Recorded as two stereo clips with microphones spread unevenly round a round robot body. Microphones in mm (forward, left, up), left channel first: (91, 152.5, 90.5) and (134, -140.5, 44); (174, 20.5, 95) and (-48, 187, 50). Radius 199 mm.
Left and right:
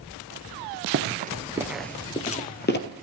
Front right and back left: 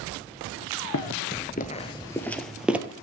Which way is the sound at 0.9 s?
35° right.